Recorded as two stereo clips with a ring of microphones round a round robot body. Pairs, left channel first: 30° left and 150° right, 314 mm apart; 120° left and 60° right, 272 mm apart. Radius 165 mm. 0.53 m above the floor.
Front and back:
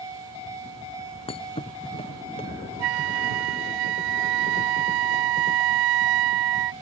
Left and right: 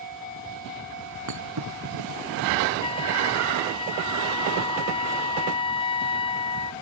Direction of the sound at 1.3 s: 45° right.